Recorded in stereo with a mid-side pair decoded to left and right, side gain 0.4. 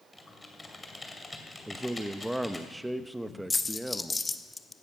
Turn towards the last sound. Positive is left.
turn(degrees=20)